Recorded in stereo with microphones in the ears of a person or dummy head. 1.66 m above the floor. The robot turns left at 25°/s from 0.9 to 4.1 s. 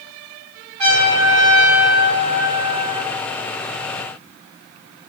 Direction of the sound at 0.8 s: 140° right.